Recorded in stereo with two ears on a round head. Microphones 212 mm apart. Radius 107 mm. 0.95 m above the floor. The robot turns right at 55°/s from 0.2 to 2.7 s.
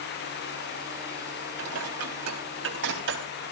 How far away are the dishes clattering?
About 4 m.